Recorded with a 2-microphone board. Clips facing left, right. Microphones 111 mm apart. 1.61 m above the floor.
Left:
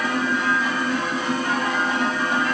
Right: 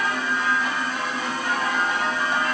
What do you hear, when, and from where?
Only background noise.